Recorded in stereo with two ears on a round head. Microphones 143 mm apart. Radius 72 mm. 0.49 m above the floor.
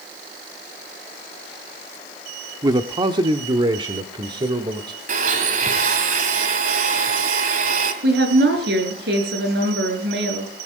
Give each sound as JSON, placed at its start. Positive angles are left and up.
{"t": 2.6, "sound": "a man speaking", "side_deg": -25, "distance_m": 0.8}
{"t": 5.1, "sound": "a blender", "side_deg": -50, "distance_m": 3.0}
{"t": 8.0, "sound": "a woman speaking", "side_deg": -75, "distance_m": 6.5}